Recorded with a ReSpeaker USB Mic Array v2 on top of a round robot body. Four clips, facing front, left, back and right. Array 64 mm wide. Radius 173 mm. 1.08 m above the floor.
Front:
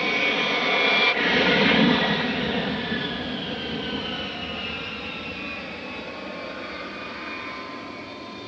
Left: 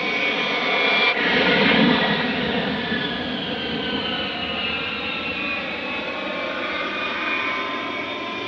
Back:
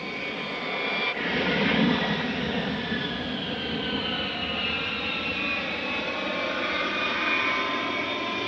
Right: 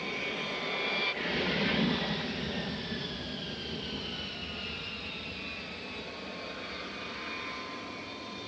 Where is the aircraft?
60° left; by 8.5 s 125° left.